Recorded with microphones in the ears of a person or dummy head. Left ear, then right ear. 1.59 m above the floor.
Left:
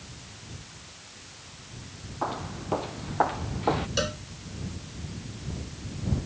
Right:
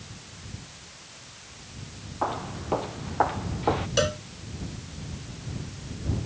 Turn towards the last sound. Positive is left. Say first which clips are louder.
# right 4 dB
turn(degrees=-20)  # may be behind; listen again after turning